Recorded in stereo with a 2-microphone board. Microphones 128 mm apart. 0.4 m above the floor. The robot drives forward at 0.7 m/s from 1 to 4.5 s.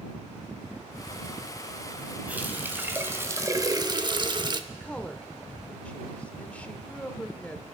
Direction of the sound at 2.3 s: 15° right (ahead or behind).